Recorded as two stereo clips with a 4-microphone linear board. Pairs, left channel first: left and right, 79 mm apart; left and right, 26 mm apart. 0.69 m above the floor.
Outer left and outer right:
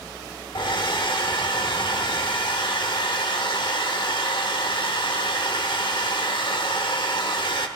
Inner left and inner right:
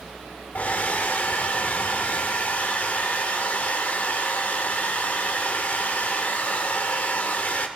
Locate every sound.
0.6 s a hair dryer: 85° left, 1.0 m